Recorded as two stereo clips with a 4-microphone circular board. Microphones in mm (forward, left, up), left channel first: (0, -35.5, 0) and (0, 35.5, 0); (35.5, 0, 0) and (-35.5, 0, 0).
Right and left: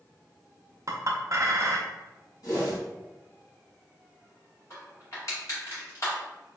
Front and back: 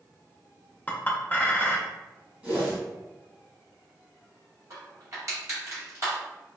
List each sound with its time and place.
0.9 s a clink: 60° left, 0.5 m
2.4 s a whoosh: 115° right, 1.6 m
4.7 s crushing: 135° right, 1.6 m